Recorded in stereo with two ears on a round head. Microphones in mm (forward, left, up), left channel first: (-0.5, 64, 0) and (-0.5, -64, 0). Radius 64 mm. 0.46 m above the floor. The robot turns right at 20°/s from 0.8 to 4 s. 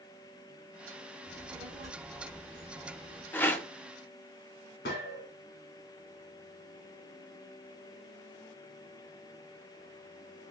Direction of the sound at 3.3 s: 15° left (ahead or behind).